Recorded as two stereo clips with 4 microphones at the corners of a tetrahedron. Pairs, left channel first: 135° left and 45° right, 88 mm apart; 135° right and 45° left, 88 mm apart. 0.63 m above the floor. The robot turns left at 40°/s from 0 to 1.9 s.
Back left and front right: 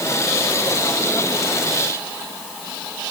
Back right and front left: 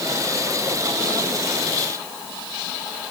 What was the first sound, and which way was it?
Only background noise.